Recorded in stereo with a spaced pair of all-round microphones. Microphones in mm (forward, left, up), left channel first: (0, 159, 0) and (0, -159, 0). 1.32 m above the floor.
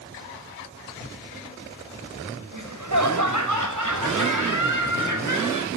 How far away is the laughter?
About 5 m.